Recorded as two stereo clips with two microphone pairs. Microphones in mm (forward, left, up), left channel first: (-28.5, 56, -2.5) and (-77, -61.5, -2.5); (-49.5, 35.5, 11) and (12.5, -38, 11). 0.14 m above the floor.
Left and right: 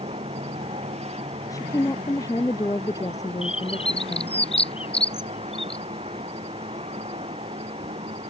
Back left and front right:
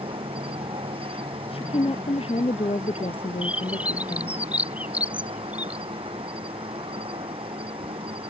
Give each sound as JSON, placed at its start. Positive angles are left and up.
{"t": 0.0, "sound": "an insect", "azimuth_deg": -80}
{"t": 1.5, "sound": "a woman speaking", "azimuth_deg": 130}
{"t": 3.4, "sound": "a bird", "azimuth_deg": 25}